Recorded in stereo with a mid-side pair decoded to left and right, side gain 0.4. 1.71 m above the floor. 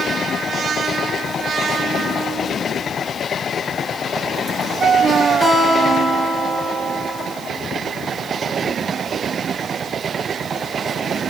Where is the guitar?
10° right, 4 m.